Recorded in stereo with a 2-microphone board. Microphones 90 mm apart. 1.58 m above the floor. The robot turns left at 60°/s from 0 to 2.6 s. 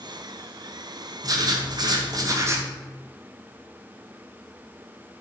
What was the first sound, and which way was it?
Writing, 60° right.